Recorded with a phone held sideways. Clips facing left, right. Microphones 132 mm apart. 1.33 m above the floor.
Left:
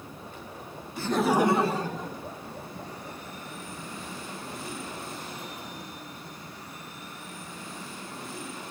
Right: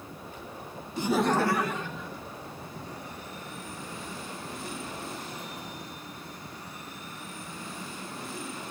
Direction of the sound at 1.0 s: 20° right (ahead or behind).